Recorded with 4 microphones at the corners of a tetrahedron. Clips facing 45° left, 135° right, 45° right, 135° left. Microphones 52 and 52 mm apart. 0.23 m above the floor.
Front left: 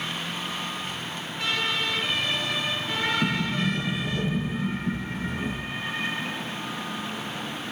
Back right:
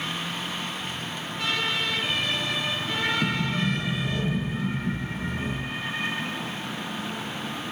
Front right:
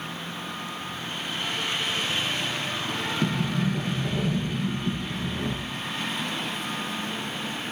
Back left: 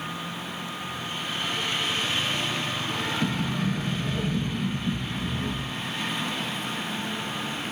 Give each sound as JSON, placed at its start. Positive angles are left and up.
{"t": 3.2, "sound": "a sliding door", "azimuth_deg": -40, "distance_m": 10.0}